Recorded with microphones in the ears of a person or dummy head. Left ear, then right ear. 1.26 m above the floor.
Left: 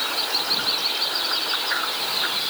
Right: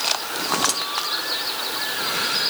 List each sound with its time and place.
Only background noise.